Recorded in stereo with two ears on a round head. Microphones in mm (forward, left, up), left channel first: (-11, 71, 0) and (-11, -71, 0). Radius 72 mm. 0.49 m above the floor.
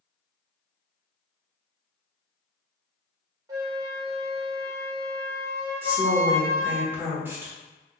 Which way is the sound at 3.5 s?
25° right (ahead or behind).